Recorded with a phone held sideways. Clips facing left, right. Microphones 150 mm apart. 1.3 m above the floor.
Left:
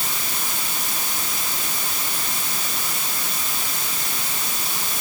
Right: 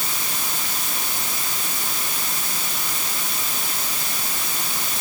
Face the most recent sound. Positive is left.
No sound to turn to.